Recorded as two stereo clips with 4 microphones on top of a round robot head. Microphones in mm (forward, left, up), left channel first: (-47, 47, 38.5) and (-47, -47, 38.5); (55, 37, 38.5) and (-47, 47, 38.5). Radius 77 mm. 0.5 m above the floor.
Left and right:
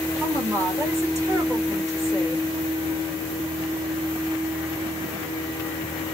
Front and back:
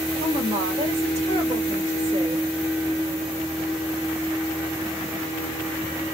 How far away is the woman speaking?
About 2 m.